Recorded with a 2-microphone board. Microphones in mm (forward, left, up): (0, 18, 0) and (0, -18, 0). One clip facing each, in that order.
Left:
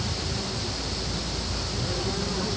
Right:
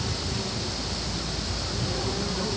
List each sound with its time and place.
Only background noise.